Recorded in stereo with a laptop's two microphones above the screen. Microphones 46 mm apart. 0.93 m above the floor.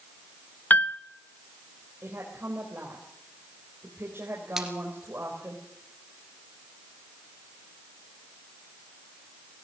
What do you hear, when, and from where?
0.7 s a piano: 35° left (ahead or behind), 0.7 m
2.0 s a woman speaking: 60° right (ahead or behind), 3.5 m
4.6 s a splash: 10° right (ahead or behind), 2.5 m